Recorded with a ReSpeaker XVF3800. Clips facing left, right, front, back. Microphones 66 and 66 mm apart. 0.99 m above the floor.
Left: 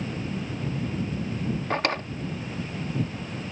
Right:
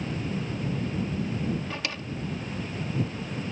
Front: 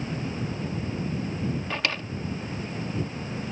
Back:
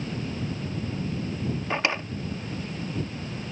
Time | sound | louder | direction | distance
1.7 | a drawer | left 8 dB, back 3 dB | 115° left | ?